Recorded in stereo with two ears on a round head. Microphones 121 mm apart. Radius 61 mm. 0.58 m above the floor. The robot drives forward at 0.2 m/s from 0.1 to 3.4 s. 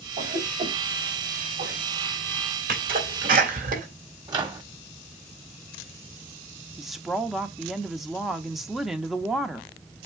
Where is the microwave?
30° right (ahead or behind), 1.2 m.